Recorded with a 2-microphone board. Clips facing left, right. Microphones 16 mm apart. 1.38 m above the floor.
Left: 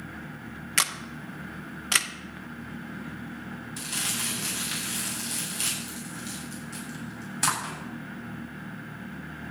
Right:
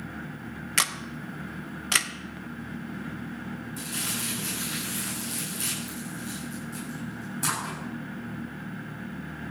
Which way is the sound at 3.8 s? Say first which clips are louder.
Left 2 dB; 45° left (ahead or behind).